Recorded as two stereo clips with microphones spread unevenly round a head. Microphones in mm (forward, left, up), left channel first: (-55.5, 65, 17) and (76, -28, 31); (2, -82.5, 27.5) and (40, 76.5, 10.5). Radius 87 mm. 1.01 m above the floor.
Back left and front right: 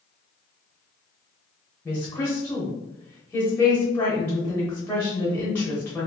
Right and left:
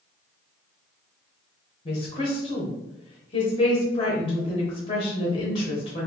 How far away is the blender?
I don't hear a blender.